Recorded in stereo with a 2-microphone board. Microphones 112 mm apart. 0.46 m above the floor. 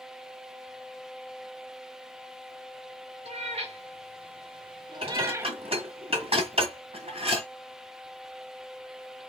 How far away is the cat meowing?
About 1.4 m.